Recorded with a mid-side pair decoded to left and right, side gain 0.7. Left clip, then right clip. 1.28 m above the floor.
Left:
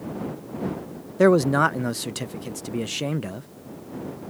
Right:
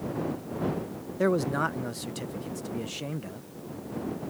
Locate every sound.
1.2 s a man speaking: 40° left